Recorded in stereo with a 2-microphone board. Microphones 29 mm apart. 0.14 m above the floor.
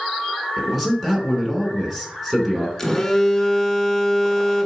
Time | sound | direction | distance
0.6 | a man speaking | 5° right (ahead or behind) | 1.5 m
2.8 | a phone buzzing | 10° left (ahead or behind) | 0.8 m